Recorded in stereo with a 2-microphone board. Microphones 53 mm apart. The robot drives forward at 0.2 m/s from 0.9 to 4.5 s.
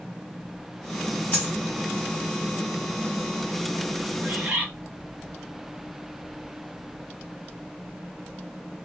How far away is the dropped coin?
About 1.2 m.